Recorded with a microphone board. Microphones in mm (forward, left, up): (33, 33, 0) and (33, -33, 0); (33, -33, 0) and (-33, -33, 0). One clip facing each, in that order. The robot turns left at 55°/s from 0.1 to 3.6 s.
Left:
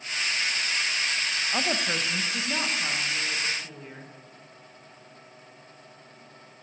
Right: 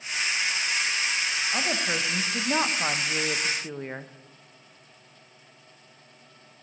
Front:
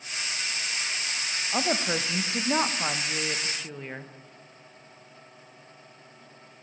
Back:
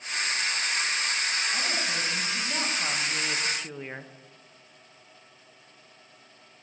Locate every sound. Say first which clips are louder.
1.5 s a woman speaking: left 1 dB, front 3 dB; 20° left, 0.7 m; by 4.1 s 95° right, 0.7 m